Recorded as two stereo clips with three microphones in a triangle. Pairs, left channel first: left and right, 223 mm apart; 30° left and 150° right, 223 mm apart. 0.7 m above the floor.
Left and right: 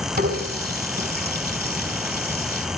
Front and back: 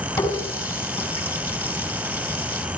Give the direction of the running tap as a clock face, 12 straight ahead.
2 o'clock.